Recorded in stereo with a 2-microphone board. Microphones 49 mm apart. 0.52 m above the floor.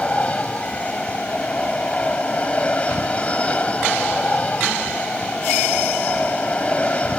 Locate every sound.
0.0 s an aircraft: 25° left (ahead or behind)